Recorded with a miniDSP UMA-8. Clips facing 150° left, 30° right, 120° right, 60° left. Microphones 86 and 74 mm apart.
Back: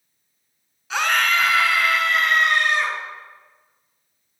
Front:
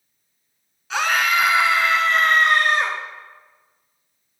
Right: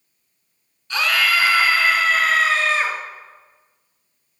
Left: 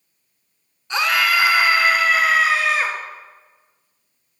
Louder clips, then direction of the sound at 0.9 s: Front 1 dB, left 1 dB; 65° left.